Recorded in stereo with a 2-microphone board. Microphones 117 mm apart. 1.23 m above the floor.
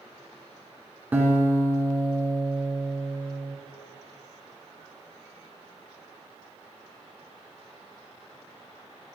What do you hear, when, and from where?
1.1 s a guitar: 15° right (ahead or behind), 2 m